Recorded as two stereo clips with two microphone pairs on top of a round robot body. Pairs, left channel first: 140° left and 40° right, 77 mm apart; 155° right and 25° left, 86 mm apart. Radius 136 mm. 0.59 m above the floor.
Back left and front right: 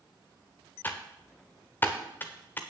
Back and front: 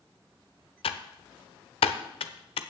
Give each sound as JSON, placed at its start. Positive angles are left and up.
{"t": 0.8, "sound": "typing on a keyboard", "azimuth_deg": -155, "distance_m": 0.6}